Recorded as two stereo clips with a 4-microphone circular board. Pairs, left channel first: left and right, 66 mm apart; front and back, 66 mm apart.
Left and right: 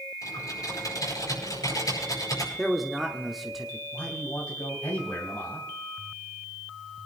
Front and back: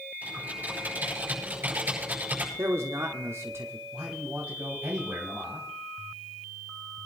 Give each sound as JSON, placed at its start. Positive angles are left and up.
{"t": 0.2, "sound": "typing on a keyboard", "azimuth_deg": 115, "distance_m": 7.5}
{"t": 2.6, "sound": "a man speaking", "azimuth_deg": 180, "distance_m": 1.1}
{"t": 3.9, "sound": "a man speaking", "azimuth_deg": 120, "distance_m": 3.0}